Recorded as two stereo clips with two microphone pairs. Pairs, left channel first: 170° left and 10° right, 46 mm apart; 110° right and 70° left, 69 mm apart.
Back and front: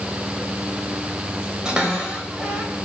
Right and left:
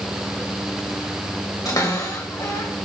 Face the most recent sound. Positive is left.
turn(degrees=-85)